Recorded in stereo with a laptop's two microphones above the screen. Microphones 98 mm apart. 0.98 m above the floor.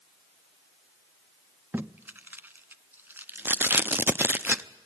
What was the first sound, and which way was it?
Tape being pulled, 20° right (ahead or behind).